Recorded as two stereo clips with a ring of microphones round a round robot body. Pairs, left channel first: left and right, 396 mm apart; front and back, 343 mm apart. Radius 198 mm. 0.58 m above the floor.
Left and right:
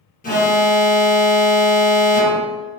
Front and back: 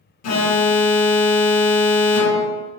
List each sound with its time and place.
0.2 s an alarm: 25° left, 1.0 m